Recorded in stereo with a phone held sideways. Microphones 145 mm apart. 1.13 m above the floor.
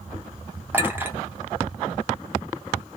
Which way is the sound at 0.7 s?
15° right (ahead or behind).